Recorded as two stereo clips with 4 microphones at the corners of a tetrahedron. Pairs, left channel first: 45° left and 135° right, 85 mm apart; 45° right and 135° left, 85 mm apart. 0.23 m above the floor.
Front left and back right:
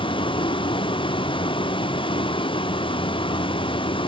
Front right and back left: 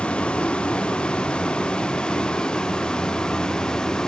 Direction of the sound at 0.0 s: 30° left.